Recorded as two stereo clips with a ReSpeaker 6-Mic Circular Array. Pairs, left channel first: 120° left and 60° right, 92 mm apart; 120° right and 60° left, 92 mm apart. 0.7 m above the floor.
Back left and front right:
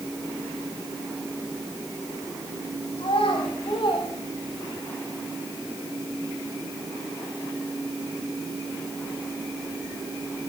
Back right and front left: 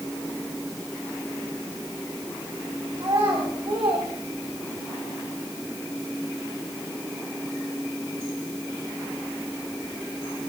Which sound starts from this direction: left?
A child speaking, at 3.0 s.